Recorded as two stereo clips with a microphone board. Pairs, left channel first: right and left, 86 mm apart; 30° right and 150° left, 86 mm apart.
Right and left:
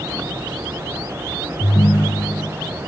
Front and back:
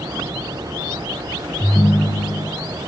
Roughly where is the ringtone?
Ahead right.